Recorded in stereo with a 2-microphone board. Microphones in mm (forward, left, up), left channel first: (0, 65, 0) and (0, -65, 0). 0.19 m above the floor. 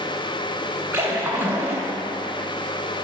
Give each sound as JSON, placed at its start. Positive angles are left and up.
{"t": 0.9, "sound": "a splash", "side_deg": -20, "distance_m": 0.5}